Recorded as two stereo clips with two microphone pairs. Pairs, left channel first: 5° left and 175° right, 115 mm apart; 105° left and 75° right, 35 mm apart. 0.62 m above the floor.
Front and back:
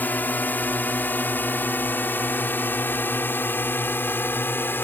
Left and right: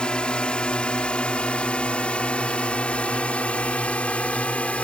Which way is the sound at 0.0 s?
70° left.